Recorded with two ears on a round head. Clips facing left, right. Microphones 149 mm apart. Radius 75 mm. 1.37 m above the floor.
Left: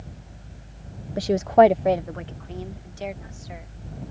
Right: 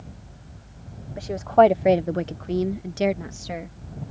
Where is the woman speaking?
45° left (ahead or behind); by 3.8 s 80° right.